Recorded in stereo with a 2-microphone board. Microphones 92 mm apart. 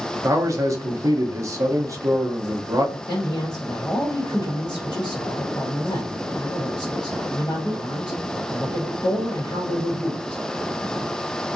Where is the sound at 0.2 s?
35° right (ahead or behind), 0.7 m.